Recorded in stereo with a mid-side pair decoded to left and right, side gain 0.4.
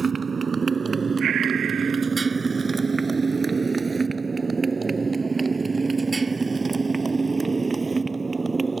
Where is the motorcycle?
45° right; by 8.8 s 30° right.